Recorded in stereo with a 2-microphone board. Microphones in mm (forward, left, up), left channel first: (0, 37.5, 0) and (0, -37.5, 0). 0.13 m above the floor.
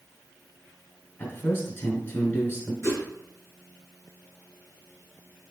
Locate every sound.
1.2 s a man speaking: 25° left (ahead or behind), 1.2 m
2.8 s a whoosh: 35° left (ahead or behind), 1.7 m